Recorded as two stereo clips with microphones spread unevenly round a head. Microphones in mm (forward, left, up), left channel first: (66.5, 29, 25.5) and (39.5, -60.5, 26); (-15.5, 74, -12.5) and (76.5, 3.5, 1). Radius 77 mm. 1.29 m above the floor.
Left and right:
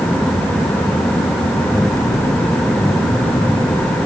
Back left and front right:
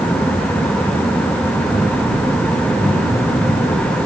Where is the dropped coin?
No dropped coin in this recording.